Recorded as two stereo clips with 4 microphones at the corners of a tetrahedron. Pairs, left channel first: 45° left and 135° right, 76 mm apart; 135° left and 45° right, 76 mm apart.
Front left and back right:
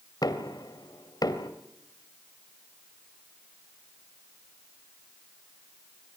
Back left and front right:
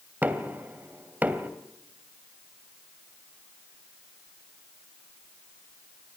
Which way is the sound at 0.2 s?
20° left.